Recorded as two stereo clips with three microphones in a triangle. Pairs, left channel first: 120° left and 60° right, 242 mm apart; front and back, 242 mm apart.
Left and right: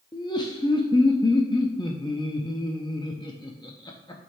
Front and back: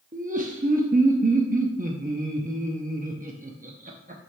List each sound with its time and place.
0.1 s laughter: straight behind, 0.6 m